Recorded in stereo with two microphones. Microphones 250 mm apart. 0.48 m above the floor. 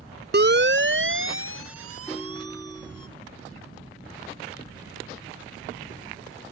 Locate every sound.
0.3 s a siren: 45° right (ahead or behind); by 3.1 s 70° right (ahead or behind)
2.1 s a ringtone: centre (ahead or behind)